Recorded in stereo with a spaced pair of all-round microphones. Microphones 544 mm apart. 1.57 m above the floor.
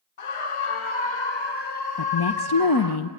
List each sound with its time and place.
0.2 s a scream: 75° left (ahead or behind), 0.8 m; by 3.0 s 35° left (ahead or behind), 1.9 m
2.0 s a woman speaking: 45° left (ahead or behind), 0.7 m